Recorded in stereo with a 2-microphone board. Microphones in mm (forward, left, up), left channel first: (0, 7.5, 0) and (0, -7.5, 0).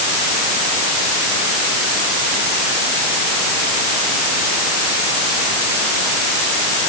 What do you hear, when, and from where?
Only background noise.